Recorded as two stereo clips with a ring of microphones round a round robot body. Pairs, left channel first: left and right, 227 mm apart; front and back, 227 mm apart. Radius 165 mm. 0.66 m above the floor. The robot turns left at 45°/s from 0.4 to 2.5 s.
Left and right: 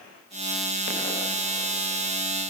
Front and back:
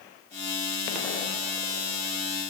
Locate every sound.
Only background noise.